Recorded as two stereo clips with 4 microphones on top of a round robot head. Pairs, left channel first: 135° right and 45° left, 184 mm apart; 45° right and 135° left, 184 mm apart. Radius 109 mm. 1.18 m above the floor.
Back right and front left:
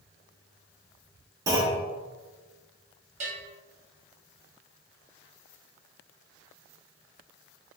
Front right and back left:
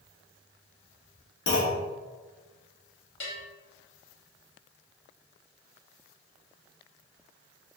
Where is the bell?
10° right, 1.0 m.